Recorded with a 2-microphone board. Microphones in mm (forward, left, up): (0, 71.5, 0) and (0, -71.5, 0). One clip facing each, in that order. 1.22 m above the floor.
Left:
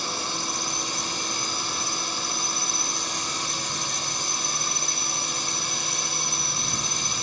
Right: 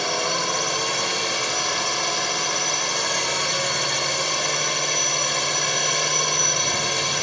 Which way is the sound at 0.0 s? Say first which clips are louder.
Right 8 dB; 80° right.